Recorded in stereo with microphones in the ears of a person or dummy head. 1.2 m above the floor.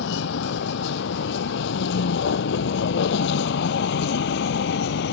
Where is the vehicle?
60° left (ahead or behind).